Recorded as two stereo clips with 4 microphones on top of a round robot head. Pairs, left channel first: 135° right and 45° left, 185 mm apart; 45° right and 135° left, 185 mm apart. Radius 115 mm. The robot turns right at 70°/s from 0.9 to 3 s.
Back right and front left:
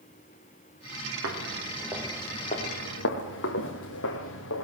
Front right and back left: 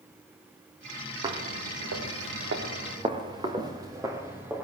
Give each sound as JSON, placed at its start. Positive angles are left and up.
{"t": 1.2, "sound": "footsteps", "azimuth_deg": 70, "distance_m": 4.0}